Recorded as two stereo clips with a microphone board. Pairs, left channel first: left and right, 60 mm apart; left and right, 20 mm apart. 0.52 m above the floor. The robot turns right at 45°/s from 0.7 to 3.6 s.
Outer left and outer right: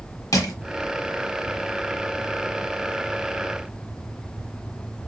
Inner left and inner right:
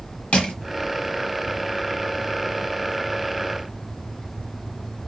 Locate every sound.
0.3 s crushing: 85° left, 0.9 m